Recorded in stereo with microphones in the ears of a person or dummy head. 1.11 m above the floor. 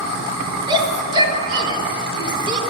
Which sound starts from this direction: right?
A shout, at 0.7 s.